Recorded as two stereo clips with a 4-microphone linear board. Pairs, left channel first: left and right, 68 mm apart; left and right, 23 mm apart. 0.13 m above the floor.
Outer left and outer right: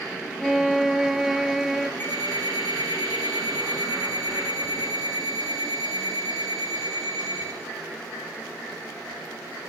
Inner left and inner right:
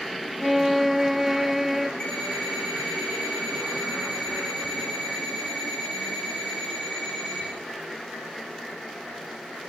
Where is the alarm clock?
25° left (ahead or behind), 7 m.